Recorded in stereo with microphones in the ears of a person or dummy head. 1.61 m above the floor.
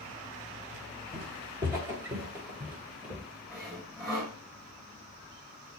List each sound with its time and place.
1.1 s footsteps: 20° right (ahead or behind), 1.6 m; by 3.3 s 10° right (ahead or behind), 3 m
3.5 s sawing: 20° right (ahead or behind), 9 m